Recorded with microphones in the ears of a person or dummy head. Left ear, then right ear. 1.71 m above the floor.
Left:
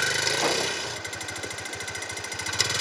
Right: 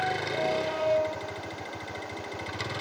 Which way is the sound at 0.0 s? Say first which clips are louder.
Left 4 dB; 80° left.